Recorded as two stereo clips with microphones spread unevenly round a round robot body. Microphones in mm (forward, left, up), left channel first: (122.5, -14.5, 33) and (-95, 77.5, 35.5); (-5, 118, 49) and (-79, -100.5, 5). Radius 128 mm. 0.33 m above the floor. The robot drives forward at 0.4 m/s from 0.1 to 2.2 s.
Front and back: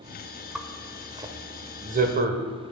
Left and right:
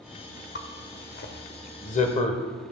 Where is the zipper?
70° left, 0.9 m; by 2.4 s 130° left, 1.0 m.